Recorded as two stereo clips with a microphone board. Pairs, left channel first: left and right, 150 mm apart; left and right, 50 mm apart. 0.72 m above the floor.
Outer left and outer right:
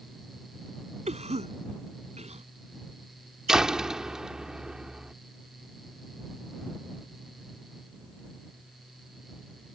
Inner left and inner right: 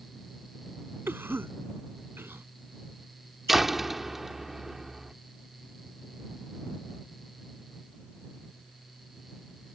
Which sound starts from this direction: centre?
A door slam, at 3.5 s.